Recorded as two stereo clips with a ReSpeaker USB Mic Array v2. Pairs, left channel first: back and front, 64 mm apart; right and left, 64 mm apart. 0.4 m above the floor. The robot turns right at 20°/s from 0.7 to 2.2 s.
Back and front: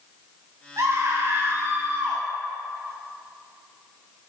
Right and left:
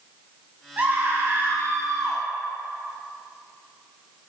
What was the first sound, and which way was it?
A scream, 30° left.